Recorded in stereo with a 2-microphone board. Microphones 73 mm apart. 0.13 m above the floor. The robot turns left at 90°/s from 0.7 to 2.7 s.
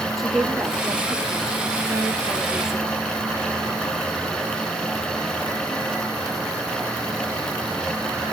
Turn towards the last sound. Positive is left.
turn(degrees=175)